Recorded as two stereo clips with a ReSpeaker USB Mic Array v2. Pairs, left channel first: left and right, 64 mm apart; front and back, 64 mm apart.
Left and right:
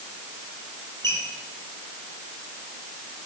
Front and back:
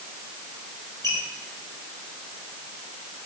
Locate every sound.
1.0 s a squeak: 40° left, 3 m